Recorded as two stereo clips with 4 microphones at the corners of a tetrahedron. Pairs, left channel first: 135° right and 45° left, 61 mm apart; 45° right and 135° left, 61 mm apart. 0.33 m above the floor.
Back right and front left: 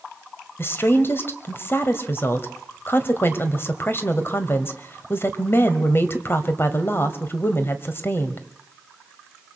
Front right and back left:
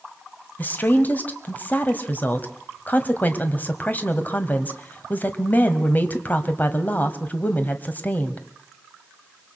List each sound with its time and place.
0.6 s a woman speaking: 95° right, 1.9 m